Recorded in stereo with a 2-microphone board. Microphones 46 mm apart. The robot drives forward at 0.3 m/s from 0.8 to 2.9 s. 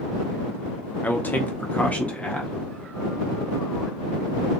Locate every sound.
1.0 s a man speaking: 40° left (ahead or behind), 0.6 m; by 2.5 s 30° left (ahead or behind), 0.8 m